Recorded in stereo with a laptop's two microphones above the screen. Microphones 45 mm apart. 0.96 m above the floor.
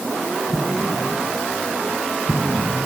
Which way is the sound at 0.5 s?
35° right (ahead or behind).